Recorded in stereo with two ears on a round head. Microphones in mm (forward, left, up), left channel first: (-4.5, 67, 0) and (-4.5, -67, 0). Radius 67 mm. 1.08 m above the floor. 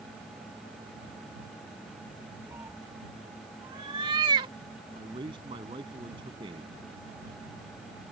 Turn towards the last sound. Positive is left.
turn(degrees=-35)  # may be behind; listen again after turning